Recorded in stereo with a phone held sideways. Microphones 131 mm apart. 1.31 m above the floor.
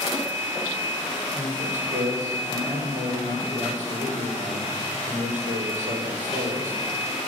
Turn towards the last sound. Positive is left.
turn(degrees=-65)  # may be behind; listen again after turning